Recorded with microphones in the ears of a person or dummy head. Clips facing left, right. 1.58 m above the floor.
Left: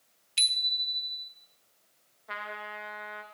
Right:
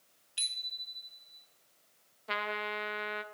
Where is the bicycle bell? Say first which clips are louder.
Left 10 dB; 25° left (ahead or behind), 2.5 m.